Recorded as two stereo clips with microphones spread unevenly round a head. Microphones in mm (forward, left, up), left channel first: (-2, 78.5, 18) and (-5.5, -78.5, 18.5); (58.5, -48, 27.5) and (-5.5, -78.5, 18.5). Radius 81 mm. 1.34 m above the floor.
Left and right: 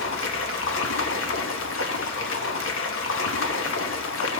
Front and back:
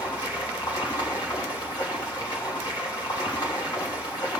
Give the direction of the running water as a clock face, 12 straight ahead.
9 o'clock.